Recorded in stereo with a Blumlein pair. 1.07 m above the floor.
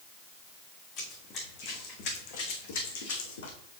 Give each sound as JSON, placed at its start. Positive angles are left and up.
{"t": 1.0, "sound": "running footsteps", "azimuth_deg": 35, "distance_m": 4.0}